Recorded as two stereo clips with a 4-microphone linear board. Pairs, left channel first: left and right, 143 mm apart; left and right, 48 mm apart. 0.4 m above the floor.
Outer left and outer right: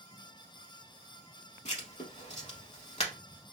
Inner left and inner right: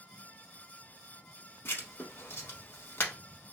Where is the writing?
55° left (ahead or behind), 0.8 m.